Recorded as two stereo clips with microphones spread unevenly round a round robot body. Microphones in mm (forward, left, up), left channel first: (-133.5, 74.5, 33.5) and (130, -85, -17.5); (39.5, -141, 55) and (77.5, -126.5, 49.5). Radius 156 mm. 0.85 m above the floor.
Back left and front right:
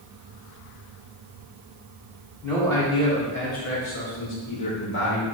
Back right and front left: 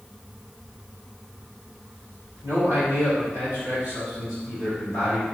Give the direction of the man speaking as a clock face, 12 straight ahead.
10 o'clock.